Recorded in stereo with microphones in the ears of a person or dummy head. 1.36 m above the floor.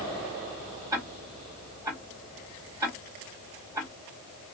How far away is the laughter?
No laughter in this recording.